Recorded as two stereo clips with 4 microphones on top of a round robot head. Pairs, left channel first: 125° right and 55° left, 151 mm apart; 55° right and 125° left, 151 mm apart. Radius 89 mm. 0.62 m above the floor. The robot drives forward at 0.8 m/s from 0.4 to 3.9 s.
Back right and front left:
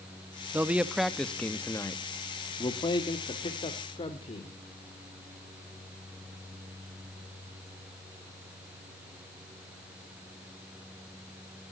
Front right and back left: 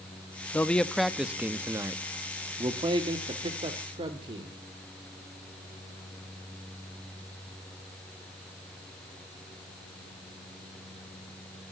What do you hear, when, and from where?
0.5 s a man speaking: straight ahead, 1.2 m; by 4.6 s straight behind, 2.5 m